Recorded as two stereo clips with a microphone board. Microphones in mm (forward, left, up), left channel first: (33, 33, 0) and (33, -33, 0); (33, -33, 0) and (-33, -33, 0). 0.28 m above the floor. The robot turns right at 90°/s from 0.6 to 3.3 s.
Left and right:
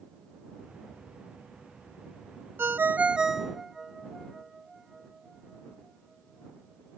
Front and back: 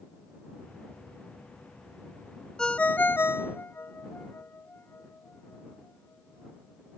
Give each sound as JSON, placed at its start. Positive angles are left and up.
{"t": 2.6, "sound": "a ringtone", "azimuth_deg": -75}